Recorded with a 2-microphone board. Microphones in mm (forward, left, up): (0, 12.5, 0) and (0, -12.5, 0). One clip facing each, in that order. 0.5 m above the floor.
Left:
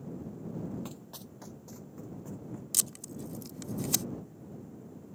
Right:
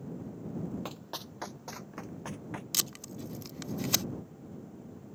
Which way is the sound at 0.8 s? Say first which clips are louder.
Right 4 dB; 25° right (ahead or behind).